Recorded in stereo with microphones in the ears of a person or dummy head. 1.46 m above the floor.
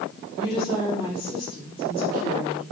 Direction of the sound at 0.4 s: 35° left (ahead or behind).